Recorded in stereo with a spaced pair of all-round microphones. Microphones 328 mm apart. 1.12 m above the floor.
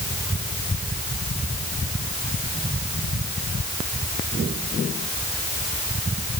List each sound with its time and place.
Only background noise.